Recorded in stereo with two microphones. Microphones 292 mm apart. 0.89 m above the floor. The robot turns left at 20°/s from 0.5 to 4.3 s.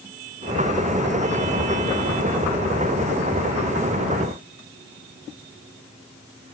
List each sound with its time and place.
Only background noise.